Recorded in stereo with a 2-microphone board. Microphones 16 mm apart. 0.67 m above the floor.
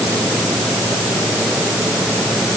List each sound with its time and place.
Only background noise.